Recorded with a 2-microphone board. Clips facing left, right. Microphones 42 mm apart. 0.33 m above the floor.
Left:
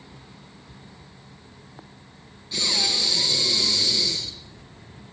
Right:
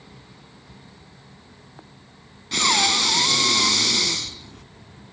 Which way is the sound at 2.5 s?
60° right (ahead or behind).